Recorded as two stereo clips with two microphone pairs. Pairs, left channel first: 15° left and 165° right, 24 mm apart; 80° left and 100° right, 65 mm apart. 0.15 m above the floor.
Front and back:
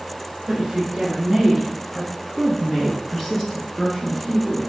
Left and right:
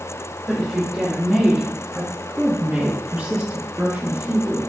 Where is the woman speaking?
160° left, 1.4 m; by 4.6 s 45° right, 2 m.